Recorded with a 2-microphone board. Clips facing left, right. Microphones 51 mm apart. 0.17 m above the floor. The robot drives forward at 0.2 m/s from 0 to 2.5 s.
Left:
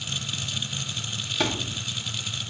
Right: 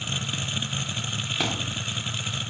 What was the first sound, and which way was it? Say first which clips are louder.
A thud: left 3 dB; 5° right (ahead or behind).